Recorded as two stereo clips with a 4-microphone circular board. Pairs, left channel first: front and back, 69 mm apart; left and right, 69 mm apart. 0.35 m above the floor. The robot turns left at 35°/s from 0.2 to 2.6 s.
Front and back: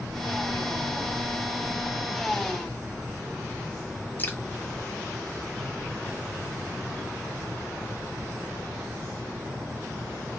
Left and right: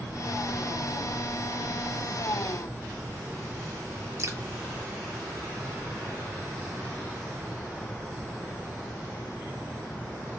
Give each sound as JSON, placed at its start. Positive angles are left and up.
{"t": 4.2, "sound": "dripping", "azimuth_deg": -60, "distance_m": 0.7}